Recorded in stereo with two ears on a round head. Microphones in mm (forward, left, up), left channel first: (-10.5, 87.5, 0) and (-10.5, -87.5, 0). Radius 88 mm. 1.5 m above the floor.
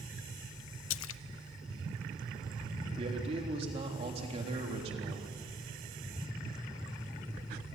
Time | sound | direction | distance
0.9 | a splash | 75° left (ahead or behind) | 0.5 m
3.0 | a man speaking | 30° right (ahead or behind) | 3.5 m